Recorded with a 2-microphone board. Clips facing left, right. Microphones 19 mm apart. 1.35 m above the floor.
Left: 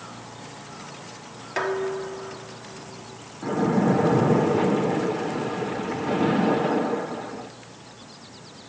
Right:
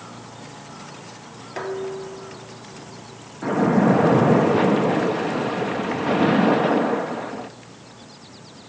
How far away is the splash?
About 1.6 m.